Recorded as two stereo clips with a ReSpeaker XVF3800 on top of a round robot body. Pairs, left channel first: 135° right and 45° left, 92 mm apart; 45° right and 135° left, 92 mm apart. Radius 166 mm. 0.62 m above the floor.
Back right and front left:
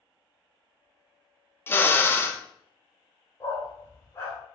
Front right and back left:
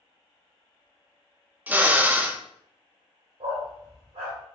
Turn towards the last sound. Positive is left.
turn(degrees=160)